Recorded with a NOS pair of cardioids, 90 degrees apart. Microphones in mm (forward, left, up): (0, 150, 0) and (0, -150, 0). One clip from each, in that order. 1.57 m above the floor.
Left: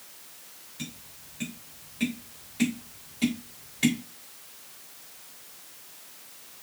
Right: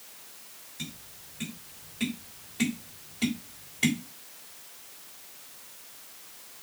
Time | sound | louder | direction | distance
0.8 | tapping | even | 5° left | 3.5 m